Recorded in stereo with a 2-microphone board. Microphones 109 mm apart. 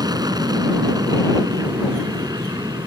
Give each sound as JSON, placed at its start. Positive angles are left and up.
{"t": 0.0, "sound": "an aircraft", "side_deg": -35}